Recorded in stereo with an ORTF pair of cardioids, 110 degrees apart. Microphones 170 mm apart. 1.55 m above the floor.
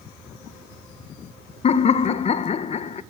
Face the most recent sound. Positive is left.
turn(degrees=40)